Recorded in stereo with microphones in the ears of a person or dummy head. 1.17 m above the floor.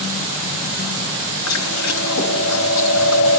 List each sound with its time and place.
1.5 s chewing: 85° left, 5.5 m